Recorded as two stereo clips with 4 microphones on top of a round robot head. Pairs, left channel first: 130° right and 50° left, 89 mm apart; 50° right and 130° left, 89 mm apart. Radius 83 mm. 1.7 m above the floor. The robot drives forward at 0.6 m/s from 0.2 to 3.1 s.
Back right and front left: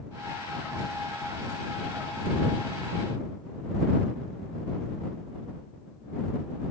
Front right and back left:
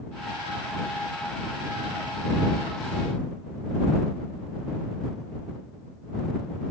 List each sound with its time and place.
Only background noise.